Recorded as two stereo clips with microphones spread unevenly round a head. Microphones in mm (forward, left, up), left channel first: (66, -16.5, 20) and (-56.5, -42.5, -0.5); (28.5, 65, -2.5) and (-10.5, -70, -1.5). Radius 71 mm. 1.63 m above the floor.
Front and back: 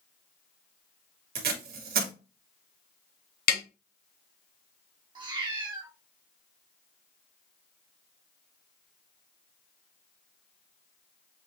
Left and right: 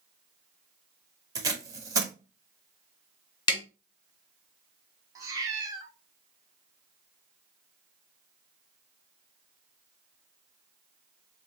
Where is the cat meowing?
140° right, 1.3 m.